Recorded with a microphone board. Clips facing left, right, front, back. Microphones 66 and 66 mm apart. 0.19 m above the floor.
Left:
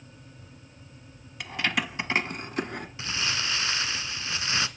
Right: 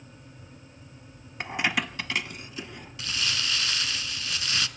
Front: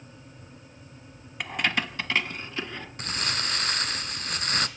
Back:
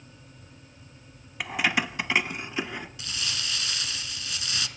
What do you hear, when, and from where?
1.4 s keys jangling: 95° right, 0.8 m; by 2.9 s 105° left, 1.6 m
3.0 s crumpling: 30° left, 0.9 m